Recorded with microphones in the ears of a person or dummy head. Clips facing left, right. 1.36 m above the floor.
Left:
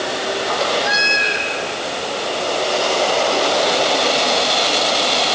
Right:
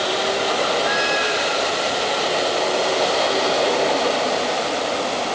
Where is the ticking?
No ticking in this recording.